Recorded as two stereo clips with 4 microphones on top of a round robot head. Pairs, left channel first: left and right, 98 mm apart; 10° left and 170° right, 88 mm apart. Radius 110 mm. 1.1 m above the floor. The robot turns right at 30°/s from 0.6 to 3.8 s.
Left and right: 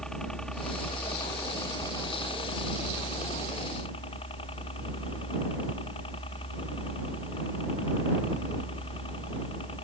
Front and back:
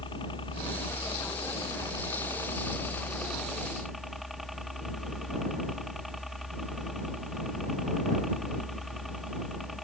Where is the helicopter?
5° left; by 9.8 s 105° left.